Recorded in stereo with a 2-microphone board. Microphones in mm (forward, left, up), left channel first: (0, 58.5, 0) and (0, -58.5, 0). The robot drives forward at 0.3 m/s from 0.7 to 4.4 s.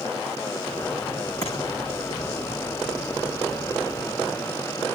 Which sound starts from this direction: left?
Tapping, at 1.4 s.